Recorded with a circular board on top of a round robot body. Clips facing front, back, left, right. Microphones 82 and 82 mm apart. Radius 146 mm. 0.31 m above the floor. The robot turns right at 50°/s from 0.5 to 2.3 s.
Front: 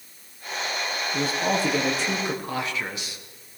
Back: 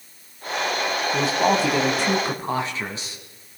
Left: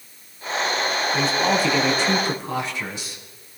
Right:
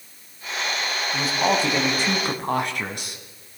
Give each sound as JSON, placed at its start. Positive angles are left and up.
{"t": 1.1, "sound": "a man speaking", "azimuth_deg": 180, "distance_m": 4.0}